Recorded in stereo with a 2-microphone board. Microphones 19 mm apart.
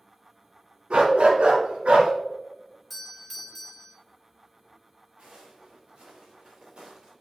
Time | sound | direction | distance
0.9 | a dog barking | 70° right (ahead or behind) | 1.1 m
2.9 | a doorbell | 10° left (ahead or behind) | 1.3 m
5.2 | footsteps | 80° right | 3 m